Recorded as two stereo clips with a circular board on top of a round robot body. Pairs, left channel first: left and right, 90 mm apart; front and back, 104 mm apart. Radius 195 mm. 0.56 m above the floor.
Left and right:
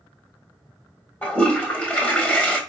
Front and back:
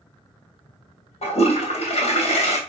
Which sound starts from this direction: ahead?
A toilet flushing, at 1.2 s.